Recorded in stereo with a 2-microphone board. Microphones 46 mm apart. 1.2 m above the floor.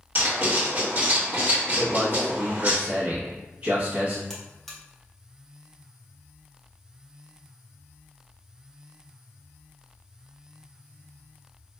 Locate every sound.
0.1 s writing: 45° right (ahead or behind), 1.6 m
1.8 s a man speaking: 30° right (ahead or behind), 1.1 m
4.3 s a buzzer: 10° left (ahead or behind), 0.8 m